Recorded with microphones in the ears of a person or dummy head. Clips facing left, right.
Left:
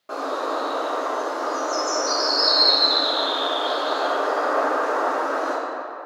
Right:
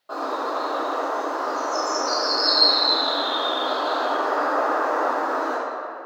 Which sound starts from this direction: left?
A bird, at 0.1 s.